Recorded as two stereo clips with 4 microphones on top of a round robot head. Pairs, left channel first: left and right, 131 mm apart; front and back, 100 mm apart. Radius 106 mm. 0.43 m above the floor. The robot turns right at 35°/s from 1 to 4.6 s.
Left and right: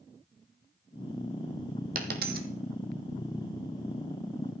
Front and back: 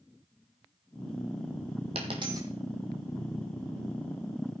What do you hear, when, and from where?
1.9 s a dropped coin: 125° right, 0.8 m; by 2.5 s 110° right, 0.8 m